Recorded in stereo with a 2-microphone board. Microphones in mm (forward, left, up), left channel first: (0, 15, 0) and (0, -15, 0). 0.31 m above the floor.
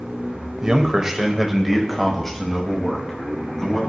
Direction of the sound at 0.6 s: 25° right (ahead or behind).